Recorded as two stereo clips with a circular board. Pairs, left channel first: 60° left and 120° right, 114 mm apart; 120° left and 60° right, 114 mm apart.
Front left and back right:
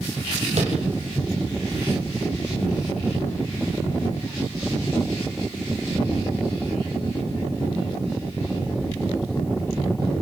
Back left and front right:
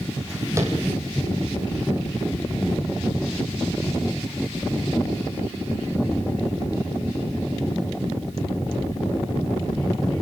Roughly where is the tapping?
Behind right.